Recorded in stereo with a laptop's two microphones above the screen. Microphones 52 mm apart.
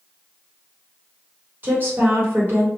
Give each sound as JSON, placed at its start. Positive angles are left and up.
{"t": 1.6, "sound": "a woman speaking", "side_deg": -35, "distance_m": 1.4}